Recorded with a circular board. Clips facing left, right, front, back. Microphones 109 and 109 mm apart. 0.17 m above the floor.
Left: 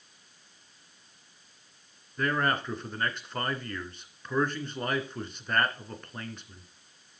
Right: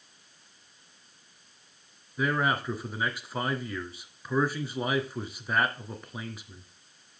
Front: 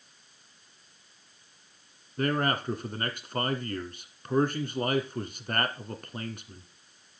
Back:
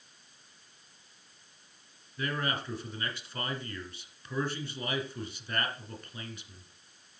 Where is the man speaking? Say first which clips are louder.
Right 1 dB, front 6 dB; 10° right, 1.6 m.